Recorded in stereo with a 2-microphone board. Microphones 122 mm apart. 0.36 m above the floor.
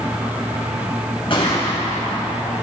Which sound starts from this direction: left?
A gunshot, at 1.3 s.